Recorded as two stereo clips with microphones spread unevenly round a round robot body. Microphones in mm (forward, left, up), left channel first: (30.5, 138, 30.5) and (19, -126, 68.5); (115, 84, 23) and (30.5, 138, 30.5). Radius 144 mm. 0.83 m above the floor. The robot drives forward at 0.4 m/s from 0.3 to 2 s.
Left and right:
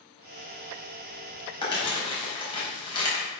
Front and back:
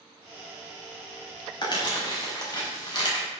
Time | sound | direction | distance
1.6 | crumpling | 15° left | 5.5 m